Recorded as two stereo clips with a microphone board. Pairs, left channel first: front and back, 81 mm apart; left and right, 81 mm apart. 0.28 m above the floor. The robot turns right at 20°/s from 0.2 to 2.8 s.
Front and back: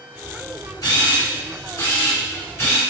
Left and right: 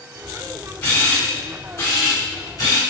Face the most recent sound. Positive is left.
turn(degrees=60)